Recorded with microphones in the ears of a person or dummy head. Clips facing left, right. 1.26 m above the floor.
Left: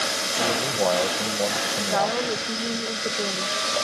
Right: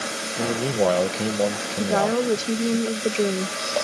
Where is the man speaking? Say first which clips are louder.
Right 3 dB; 30° right (ahead or behind).